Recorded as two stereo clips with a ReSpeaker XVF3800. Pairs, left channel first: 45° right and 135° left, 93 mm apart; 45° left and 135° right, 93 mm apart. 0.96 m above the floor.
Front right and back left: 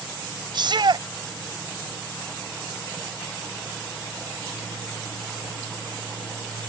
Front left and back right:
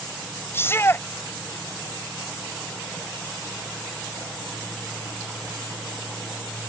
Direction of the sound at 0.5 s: 105° left.